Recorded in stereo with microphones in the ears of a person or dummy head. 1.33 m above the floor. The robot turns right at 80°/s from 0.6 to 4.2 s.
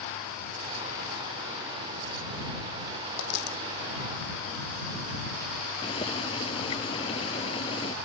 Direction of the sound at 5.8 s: 25° left (ahead or behind).